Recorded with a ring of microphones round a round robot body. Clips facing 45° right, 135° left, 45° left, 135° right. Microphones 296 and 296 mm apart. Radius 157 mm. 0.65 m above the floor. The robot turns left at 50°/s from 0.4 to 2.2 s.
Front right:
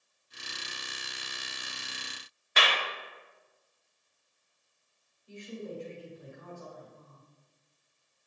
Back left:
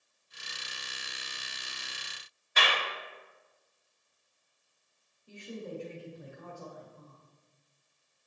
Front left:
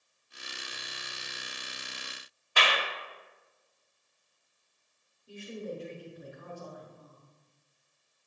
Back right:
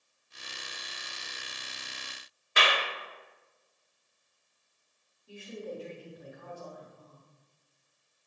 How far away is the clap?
About 1.4 m.